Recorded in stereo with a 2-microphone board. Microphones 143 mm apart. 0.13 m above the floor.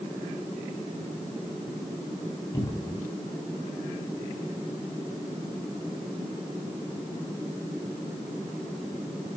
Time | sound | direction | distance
2.5 | a cupboard door | 20° left (ahead or behind) | 7.5 m